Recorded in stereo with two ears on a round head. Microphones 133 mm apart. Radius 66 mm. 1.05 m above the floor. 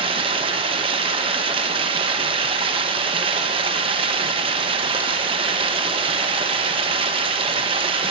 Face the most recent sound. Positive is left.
turn(degrees=-35)  # may be behind; listen again after turning